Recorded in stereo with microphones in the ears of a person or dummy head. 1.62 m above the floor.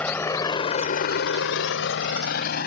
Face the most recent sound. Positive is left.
turn(degrees=65)  # may be behind; listen again after turning